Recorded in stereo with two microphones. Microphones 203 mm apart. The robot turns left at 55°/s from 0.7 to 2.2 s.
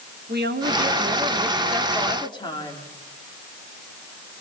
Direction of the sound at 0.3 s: 120° right.